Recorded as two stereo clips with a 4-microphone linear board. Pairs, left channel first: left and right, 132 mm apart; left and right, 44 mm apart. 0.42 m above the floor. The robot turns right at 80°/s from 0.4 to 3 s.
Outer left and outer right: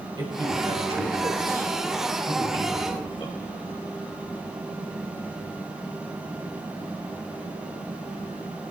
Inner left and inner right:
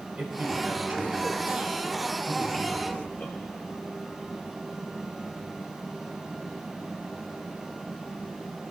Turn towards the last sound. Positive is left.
turn(degrees=45)  # may be behind; listen again after turning